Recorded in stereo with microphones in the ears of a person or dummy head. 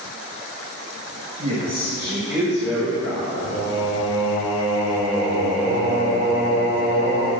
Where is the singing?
20° right (ahead or behind), 2 m.